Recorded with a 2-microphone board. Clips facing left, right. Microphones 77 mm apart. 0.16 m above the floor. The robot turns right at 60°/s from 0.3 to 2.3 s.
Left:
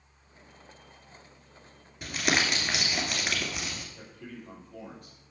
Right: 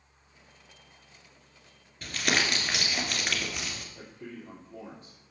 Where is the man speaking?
30° right (ahead or behind), 4 m.